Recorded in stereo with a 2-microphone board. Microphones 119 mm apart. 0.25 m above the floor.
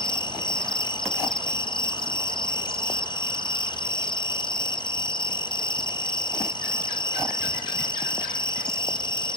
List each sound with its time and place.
0.0 s an insect: 40° left (ahead or behind), 1.1 m